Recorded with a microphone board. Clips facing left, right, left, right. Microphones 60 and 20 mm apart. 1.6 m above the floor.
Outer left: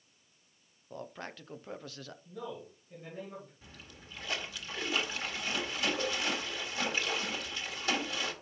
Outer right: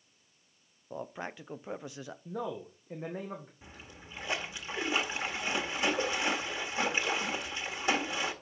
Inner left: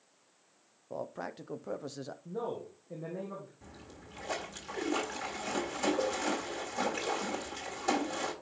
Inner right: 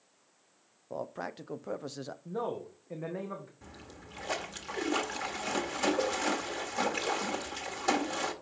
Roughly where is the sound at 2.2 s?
Right.